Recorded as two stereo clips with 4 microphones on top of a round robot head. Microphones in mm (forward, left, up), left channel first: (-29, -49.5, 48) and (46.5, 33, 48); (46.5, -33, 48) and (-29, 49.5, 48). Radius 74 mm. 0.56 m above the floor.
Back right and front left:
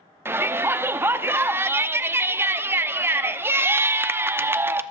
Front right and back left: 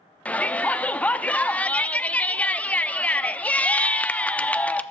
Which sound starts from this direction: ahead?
A shout, at 0.2 s.